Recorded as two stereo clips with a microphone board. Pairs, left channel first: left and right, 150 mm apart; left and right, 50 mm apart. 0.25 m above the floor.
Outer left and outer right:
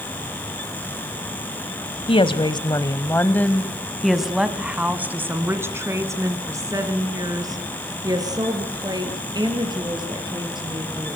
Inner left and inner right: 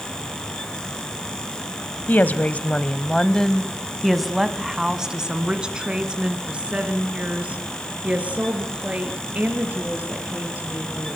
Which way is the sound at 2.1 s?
35° left (ahead or behind).